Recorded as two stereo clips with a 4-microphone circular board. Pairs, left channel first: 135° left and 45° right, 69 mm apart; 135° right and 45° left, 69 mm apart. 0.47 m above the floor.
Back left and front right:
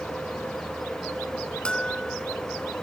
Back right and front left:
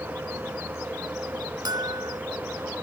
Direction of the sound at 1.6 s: 60° left.